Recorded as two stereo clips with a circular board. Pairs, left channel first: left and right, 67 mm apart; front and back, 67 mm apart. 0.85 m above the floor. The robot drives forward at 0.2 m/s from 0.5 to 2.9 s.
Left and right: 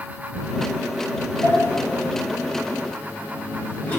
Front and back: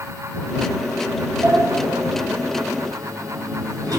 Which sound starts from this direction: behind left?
A sliding door, at 1.4 s.